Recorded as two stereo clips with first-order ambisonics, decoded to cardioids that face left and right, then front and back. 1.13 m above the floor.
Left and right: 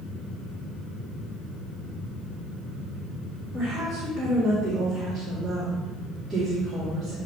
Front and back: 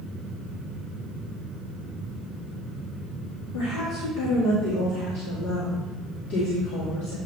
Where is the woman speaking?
10° right, 1.9 m.